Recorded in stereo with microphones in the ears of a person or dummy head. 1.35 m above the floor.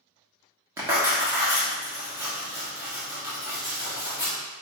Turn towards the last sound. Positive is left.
turn(degrees=-15)  # may be behind; listen again after turning